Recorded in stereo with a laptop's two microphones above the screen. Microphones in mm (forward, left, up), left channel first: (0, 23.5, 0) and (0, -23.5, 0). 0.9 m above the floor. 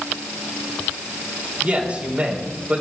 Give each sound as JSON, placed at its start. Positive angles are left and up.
{"t": 1.6, "sound": "a man speaking", "side_deg": -25, "distance_m": 3.5}